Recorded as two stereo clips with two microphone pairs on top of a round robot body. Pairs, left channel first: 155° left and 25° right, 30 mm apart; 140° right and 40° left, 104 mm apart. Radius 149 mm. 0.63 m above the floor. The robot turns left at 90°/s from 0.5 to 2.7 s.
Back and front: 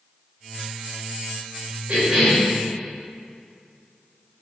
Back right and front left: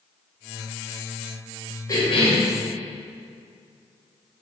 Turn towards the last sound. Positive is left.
turn(degrees=-155)